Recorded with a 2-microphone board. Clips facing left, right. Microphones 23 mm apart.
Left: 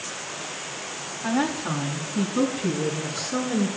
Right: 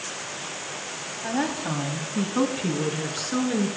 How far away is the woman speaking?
About 1.5 m.